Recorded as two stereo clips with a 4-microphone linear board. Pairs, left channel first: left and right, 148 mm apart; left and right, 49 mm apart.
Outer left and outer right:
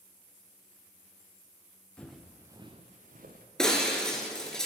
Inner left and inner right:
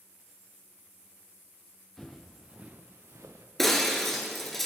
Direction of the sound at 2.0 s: 10° left (ahead or behind).